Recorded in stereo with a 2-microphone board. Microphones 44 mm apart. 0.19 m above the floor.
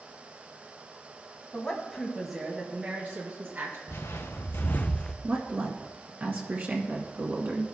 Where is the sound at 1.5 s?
30° left (ahead or behind), 1.6 m; by 3.8 s 50° right (ahead or behind), 2 m.